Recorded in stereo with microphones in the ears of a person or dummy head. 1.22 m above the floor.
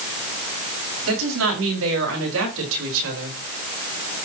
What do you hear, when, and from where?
1.1 s a woman speaking: 85° right, 5.5 m; by 3.4 s 80° right, 4 m